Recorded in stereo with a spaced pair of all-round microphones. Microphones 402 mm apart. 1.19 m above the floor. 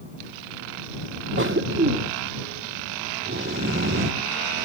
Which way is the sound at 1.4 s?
30° right (ahead or behind).